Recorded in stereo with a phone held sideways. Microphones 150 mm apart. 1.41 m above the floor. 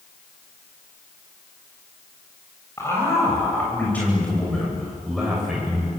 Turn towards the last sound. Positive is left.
turn(degrees=-5)  # may be behind; listen again after turning